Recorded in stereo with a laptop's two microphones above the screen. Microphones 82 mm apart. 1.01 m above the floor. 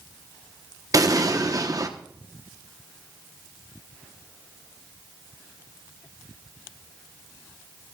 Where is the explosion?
45° right (ahead or behind), 0.9 m.